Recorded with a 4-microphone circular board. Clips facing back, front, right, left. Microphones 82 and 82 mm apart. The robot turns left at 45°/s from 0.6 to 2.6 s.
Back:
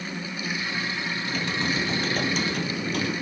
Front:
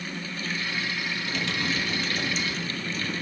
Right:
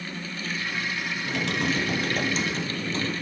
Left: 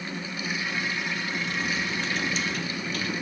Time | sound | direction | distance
1.2 | typing on a keyboard | 95° right | 3 m